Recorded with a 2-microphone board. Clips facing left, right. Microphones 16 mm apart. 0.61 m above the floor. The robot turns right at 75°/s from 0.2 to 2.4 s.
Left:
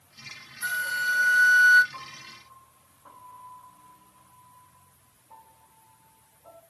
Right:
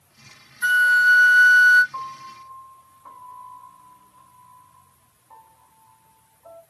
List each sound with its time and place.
0.6 s a flute: 65° right, 0.6 m; by 1.8 s 25° left, 0.6 m
1.9 s a piano: 65° right (ahead or behind), 1.9 m; by 6.6 s 30° right (ahead or behind), 1.9 m